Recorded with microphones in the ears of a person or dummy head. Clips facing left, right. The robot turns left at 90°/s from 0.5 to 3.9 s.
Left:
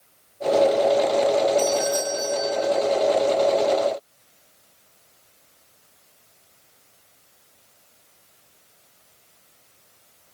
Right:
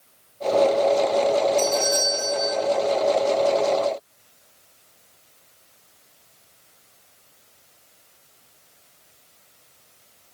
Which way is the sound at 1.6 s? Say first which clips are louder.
Left 1 dB; 105° right.